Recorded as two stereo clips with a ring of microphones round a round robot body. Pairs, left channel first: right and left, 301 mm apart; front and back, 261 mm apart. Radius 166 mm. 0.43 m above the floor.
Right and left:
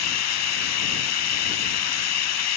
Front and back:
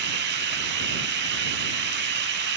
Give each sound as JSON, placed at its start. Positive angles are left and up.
{"t": 0.0, "sound": "running water", "azimuth_deg": -125}